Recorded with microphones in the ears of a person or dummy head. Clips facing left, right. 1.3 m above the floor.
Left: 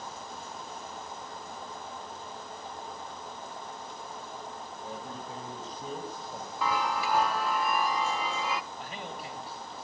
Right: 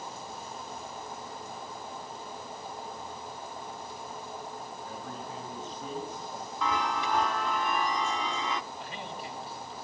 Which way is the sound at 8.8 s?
50° left (ahead or behind).